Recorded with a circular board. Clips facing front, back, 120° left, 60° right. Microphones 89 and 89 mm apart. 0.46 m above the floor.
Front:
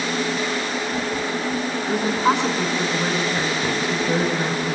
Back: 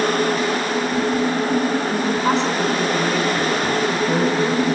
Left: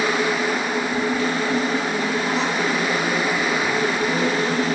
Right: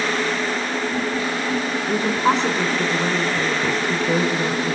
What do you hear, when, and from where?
1.9 s a woman speaking: 80° right, 4.5 m